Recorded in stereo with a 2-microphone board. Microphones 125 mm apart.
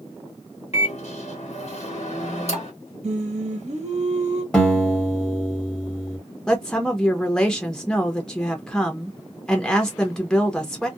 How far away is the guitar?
About 1.1 m.